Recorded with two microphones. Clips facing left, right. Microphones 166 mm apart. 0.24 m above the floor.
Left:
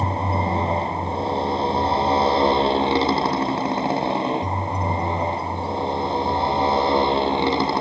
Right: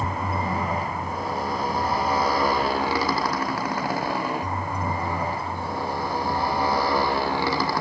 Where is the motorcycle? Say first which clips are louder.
Left 4 dB; 25° left (ahead or behind); by 7.8 s 20° left (ahead or behind).